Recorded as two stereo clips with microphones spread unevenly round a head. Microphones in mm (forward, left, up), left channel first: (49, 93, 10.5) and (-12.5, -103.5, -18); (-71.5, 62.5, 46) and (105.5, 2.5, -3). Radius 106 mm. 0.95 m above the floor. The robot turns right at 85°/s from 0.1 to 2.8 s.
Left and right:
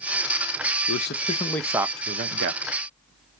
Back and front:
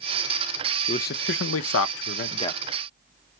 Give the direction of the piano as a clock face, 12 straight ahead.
I don't hear a piano.